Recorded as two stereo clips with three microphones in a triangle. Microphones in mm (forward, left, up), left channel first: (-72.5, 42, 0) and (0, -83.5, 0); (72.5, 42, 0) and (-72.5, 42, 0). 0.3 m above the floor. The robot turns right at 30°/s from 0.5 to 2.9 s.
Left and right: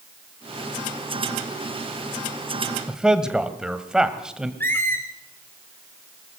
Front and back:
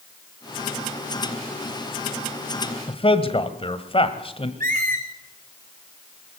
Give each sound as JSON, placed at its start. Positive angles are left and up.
{"t": 2.9, "sound": "a man speaking", "azimuth_deg": 20, "distance_m": 1.6}
{"t": 4.6, "sound": "a squeak", "azimuth_deg": -165, "distance_m": 2.5}